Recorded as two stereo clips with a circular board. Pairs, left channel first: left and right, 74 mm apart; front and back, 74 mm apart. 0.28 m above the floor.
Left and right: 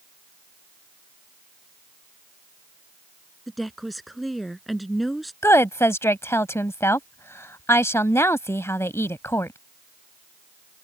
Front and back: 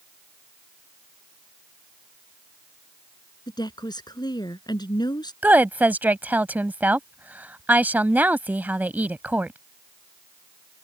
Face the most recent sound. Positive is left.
turn(degrees=125)